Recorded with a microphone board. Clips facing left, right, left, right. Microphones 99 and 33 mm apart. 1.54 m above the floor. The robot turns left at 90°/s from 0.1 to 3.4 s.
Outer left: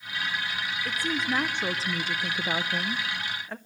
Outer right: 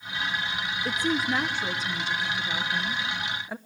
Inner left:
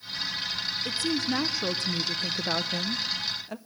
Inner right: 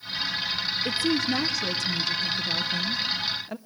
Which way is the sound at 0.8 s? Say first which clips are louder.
Outer right 3 dB, inner right 3 dB; 145° right.